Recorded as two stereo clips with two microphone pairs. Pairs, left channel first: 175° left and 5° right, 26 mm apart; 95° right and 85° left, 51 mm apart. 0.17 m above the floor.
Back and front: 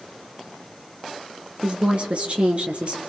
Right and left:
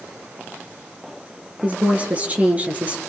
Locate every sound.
1.6 s a woman speaking: 30° left, 3 m